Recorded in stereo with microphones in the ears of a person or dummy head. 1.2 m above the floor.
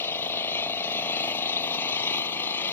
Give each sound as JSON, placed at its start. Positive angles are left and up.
{"t": 0.0, "sound": "an engine running", "side_deg": 15}